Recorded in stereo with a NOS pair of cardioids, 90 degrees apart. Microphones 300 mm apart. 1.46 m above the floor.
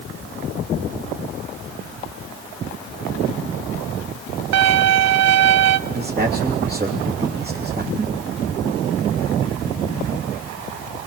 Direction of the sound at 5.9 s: 30° right.